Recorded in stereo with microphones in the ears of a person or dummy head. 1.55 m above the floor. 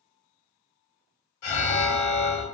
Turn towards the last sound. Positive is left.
turn(degrees=60)  # may be behind; listen again after turning